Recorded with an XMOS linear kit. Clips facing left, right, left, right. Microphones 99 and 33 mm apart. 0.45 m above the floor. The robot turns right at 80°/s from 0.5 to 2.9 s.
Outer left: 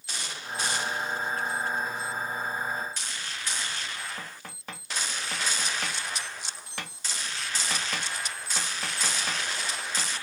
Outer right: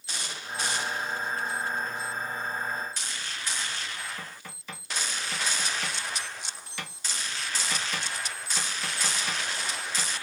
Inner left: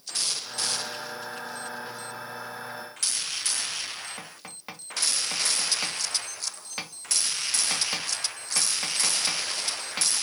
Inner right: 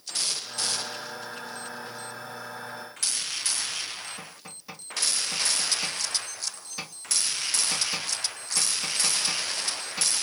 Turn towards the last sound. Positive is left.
turn(degrees=55)  # may be behind; listen again after turning